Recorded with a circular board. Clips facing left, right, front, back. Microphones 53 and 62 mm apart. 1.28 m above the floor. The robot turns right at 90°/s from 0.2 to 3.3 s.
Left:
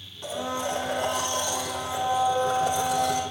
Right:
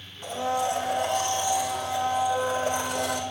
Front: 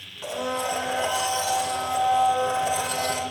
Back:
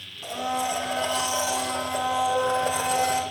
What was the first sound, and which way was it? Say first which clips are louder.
A blender: right 3 dB, even; 5° right.